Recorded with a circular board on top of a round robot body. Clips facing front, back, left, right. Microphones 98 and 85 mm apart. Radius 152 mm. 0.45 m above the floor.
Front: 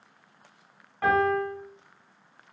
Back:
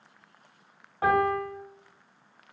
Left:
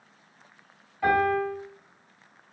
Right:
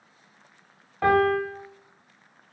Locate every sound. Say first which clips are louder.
1.0 s a piano: front 1 dB, right 2 dB; 110° right, 0.8 m